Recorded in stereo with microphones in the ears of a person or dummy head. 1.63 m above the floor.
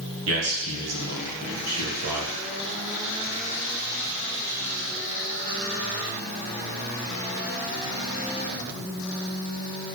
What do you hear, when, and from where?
0.3 s a man speaking: 75° right (ahead or behind), 1.7 m